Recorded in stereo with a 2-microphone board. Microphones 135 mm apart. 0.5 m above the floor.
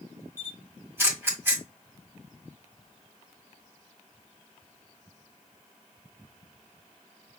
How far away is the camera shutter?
About 1.7 m.